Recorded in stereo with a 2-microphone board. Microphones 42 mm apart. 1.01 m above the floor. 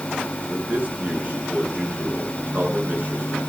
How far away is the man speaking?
About 10 m.